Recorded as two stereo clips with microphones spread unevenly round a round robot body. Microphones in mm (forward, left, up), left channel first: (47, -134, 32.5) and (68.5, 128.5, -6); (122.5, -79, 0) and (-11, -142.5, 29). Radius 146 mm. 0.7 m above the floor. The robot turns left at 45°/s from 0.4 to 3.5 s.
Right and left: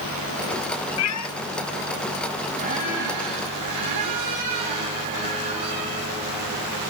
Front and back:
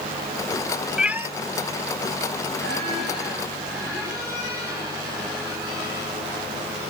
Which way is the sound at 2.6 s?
155° left.